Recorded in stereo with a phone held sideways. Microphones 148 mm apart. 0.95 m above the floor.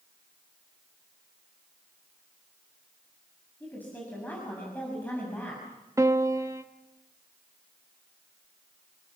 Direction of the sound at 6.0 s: 20° right (ahead or behind).